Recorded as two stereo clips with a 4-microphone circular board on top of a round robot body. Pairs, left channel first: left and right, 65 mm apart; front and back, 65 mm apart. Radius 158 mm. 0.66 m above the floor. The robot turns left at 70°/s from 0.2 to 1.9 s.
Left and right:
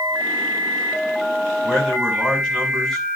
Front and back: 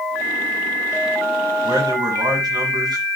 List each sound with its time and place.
1.6 s a man speaking: 160° right, 8 m; by 3.0 s straight behind, 8 m